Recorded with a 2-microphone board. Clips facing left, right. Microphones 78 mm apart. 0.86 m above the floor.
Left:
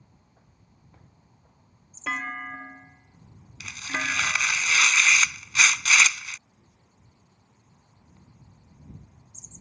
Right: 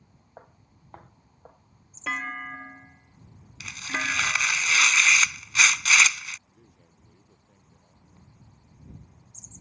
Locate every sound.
0.4 s footsteps: 60° right (ahead or behind)
2.1 s a clunk: 5° left (ahead or behind)
3.6 s tearing paper: 5° right (ahead or behind)
6.5 s a man speaking: 65° right (ahead or behind)